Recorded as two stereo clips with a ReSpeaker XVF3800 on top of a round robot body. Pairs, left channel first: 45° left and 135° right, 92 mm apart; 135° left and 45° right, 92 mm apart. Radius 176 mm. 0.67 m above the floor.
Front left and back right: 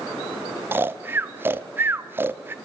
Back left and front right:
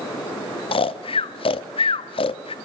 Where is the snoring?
155° left, 0.7 m.